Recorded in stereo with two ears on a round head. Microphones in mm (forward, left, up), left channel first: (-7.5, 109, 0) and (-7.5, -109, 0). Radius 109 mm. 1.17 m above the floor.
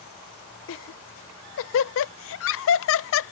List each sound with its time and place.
0.7 s laughter: 60° left (ahead or behind)